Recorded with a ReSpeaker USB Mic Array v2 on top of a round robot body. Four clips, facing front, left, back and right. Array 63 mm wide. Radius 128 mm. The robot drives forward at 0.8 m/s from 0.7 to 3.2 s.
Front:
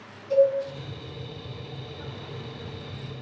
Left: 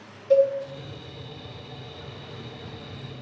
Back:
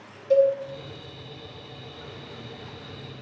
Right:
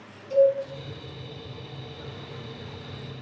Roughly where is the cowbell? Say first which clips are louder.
Left 1 dB, back 1 dB; left.